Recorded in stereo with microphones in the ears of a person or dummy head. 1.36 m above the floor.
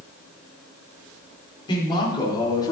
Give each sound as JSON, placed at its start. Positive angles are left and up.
{"t": 1.7, "sound": "a man speaking", "side_deg": 20, "distance_m": 3.5}